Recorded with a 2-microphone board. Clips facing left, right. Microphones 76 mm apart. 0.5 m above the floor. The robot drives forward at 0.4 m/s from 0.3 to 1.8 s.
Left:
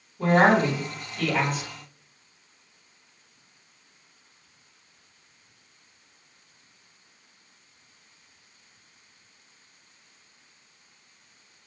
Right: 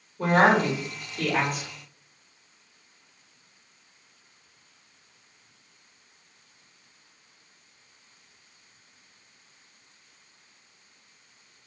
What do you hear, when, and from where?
0.2 s a woman speaking: 40° right (ahead or behind), 1.5 m; by 1.7 s 50° right (ahead or behind), 1.3 m